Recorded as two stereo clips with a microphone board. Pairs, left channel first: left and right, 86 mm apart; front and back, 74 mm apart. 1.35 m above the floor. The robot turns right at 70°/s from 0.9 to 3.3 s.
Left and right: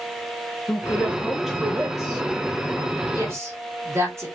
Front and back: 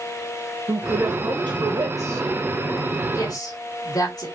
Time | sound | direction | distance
0.7 | a woman speaking | 145° left | 1.2 m
3.1 | a woman speaking | 45° right | 2 m